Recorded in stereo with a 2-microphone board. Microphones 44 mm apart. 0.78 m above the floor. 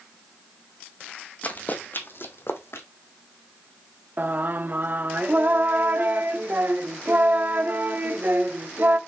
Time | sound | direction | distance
1.4 | running footsteps | 35° left (ahead or behind) | 1.6 m
4.2 | singing | 45° right (ahead or behind) | 0.8 m